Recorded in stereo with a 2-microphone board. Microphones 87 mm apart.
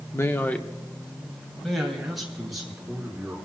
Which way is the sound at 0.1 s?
30° left (ahead or behind).